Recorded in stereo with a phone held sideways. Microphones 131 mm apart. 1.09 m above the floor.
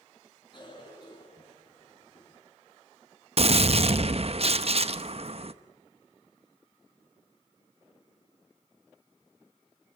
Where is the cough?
35° left (ahead or behind), 9.5 m.